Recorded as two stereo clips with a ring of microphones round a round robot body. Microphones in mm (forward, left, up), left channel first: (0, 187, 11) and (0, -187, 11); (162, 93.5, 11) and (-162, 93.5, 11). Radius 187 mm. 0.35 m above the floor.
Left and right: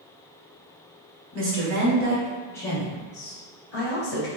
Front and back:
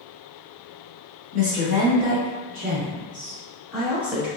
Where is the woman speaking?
125° right, 1.2 m; by 4.3 s 110° left, 1.6 m.